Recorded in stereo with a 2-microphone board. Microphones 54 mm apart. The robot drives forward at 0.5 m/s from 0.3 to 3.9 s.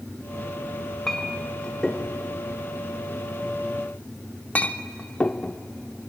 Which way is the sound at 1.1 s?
10° left (ahead or behind).